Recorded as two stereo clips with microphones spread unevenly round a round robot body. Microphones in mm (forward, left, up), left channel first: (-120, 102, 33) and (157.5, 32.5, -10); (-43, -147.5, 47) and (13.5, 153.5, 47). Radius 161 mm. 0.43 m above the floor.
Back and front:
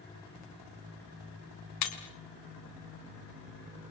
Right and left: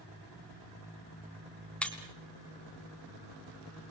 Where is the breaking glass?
175° left, 3 m.